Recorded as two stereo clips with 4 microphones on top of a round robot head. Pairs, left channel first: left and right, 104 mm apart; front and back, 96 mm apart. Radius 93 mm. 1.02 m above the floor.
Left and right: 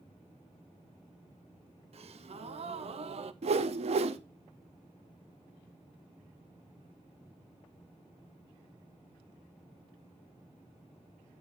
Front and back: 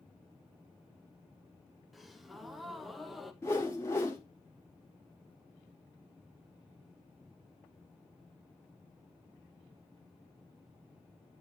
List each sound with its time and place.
1.9 s a gasp: 90° right, 0.9 m
3.4 s a whoosh: 70° right, 0.8 m